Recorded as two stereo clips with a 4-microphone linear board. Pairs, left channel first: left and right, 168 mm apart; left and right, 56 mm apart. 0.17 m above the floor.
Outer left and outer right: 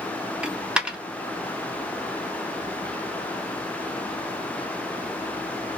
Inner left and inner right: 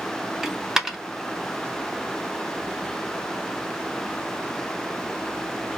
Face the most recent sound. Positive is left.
turn(degrees=-5)  # may be behind; listen again after turning